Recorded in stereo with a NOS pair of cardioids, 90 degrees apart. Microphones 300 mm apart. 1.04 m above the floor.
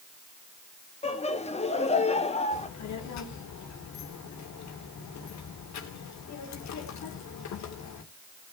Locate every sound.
1.0 s laughter: 20° left, 2 m
2.5 s a child speaking: 65° left, 2.5 m